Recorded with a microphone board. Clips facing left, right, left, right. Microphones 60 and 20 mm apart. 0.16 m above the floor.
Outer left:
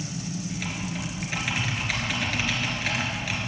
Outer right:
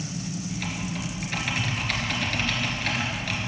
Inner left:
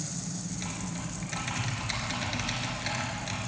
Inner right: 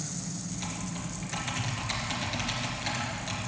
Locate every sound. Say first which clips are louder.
0.5 s typing on a keyboard: even, even; 5° left (ahead or behind), 3 m